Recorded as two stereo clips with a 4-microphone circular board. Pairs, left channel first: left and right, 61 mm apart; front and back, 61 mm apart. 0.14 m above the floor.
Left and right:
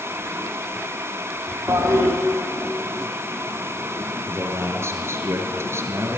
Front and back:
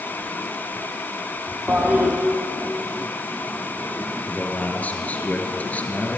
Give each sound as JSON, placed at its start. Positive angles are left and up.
{"t": 1.7, "sound": "a toilet flushing", "azimuth_deg": -120, "distance_m": 3.5}
{"t": 4.2, "sound": "a man speaking", "azimuth_deg": -60, "distance_m": 2.5}